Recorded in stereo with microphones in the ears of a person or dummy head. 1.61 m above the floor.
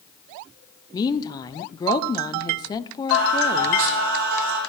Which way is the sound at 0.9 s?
20° left (ahead or behind).